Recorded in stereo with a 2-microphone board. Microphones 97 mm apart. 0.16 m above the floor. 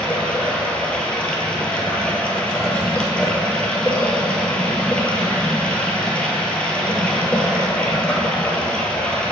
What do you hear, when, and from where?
0.0 s running water: 10° left (ahead or behind), 1.4 m